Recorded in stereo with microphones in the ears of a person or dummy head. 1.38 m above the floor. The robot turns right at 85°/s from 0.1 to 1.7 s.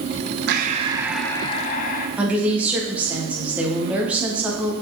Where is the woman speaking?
5° right (ahead or behind), 1.1 m.